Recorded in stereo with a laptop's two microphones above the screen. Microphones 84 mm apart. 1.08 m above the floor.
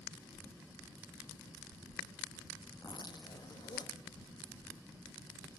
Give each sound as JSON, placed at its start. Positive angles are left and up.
{"t": 2.8, "sound": "a zipper", "side_deg": 55, "distance_m": 1.0}